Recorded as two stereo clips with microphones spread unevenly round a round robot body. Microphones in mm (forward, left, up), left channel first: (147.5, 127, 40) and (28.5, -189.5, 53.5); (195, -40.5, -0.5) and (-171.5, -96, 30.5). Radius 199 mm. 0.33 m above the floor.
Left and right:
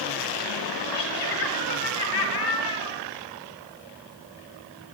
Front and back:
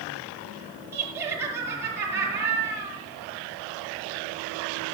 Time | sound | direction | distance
0.9 | laughter | 105° left | 7.5 m